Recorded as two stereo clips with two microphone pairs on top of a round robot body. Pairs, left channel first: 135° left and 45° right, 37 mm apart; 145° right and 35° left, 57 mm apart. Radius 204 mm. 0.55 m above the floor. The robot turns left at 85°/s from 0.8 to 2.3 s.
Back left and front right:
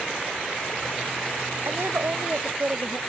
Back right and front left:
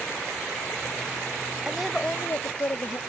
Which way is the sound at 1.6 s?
40° right.